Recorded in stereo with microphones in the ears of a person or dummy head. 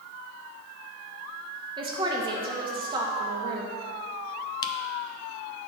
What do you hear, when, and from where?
1.8 s a woman speaking: 25° right (ahead or behind), 0.9 m
4.6 s a camera shutter: 25° left (ahead or behind), 0.6 m